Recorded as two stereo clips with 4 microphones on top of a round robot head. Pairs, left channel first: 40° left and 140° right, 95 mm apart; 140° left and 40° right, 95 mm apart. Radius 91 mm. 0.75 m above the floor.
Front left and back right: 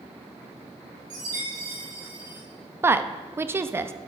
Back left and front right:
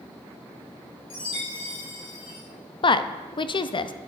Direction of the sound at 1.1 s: 170° left.